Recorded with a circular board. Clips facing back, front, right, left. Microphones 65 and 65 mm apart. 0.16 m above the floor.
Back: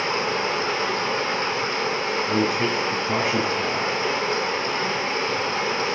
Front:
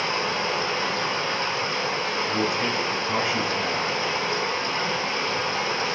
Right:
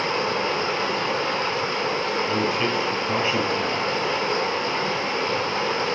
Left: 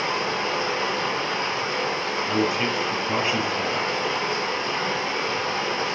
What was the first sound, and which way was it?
Running water, 130° right.